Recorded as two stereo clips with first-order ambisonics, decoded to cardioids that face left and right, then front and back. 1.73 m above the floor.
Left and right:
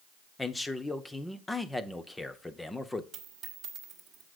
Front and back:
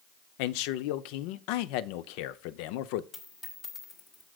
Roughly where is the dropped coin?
Ahead right.